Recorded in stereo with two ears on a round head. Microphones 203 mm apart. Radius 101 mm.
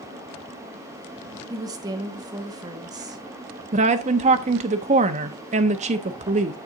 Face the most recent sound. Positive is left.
turn(degrees=-30)  # may be behind; listen again after turning